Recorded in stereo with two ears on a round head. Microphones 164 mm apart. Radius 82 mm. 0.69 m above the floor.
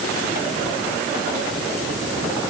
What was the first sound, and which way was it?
Only background noise.